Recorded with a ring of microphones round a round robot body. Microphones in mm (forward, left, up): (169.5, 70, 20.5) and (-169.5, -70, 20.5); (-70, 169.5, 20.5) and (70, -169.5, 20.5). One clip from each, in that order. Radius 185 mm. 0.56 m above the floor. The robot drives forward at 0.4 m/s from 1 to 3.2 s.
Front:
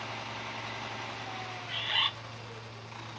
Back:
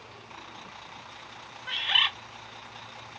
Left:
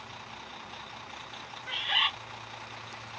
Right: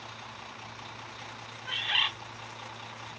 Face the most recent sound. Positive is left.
turn(degrees=-150)